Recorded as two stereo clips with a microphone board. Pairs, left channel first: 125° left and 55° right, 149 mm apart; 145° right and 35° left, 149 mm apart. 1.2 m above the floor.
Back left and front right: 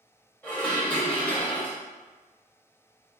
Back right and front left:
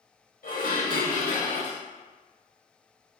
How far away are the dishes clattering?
About 1.3 m.